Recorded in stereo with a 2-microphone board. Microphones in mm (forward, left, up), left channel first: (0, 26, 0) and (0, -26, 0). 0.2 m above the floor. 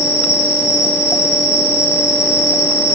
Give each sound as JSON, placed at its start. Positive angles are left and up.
{"t": 0.0, "sound": "an insect", "side_deg": 65, "distance_m": 1.7}